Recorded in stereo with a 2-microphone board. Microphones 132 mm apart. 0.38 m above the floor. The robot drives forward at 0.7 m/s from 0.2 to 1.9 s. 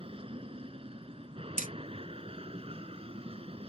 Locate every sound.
0.0 s an aircraft: 45° right (ahead or behind)
1.6 s hammering: 80° right; by 1.7 s 85° right